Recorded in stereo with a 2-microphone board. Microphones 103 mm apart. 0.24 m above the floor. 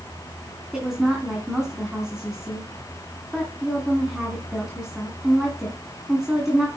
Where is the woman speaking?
5° right (ahead or behind), 2.5 m.